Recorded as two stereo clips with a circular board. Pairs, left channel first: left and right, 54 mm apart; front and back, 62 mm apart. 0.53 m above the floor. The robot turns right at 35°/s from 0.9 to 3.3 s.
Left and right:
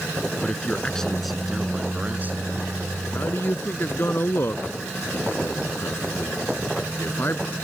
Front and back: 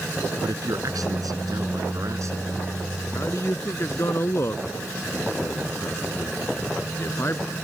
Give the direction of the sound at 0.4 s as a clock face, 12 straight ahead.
6 o'clock.